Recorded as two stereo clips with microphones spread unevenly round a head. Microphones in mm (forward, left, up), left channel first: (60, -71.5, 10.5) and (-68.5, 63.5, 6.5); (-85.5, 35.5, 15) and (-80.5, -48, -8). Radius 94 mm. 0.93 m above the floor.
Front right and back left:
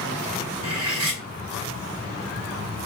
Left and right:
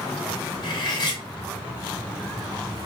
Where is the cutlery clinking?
120° left, 0.8 m.